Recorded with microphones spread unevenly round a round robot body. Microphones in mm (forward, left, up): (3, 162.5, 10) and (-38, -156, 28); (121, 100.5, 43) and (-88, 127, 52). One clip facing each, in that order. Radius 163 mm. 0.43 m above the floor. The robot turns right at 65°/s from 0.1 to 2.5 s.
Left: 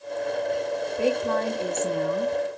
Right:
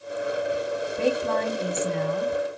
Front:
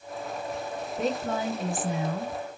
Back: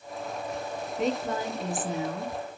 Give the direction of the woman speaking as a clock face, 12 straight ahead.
2 o'clock.